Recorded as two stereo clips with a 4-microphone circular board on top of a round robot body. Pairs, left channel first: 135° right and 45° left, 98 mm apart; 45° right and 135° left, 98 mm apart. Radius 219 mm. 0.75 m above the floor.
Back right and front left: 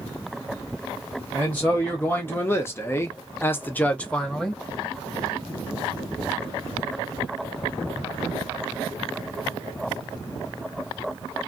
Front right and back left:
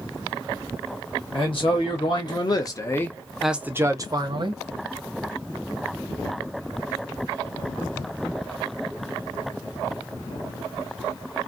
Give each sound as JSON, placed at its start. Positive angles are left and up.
{"t": 1.3, "sound": "a man speaking", "azimuth_deg": -65, "distance_m": 1.4}